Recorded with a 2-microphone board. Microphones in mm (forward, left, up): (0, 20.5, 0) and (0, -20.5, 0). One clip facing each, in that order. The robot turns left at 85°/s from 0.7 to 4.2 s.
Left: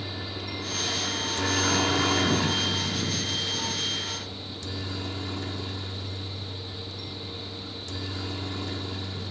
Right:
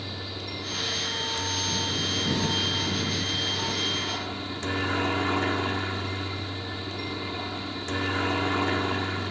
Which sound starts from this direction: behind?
A helicopter, at 0.0 s.